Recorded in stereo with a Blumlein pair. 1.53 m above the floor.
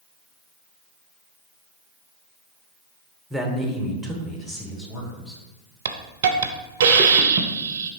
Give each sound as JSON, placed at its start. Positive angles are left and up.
{"t": 3.3, "sound": "a man speaking", "azimuth_deg": 0, "distance_m": 0.8}
{"t": 5.8, "sound": "a hiss", "azimuth_deg": -55, "distance_m": 0.5}